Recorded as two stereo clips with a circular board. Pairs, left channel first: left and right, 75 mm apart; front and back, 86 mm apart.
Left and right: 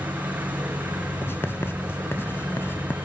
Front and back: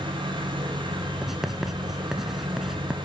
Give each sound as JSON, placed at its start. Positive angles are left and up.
{"t": 0.0, "sound": "an engine running", "azimuth_deg": -160, "distance_m": 4.0}
{"t": 1.2, "sound": "writing", "azimuth_deg": 95, "distance_m": 0.9}